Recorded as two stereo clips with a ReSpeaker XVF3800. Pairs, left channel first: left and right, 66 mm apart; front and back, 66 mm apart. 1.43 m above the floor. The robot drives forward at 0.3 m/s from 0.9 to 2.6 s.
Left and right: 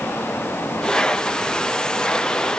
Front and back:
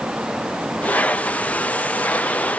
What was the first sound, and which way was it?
Only background noise.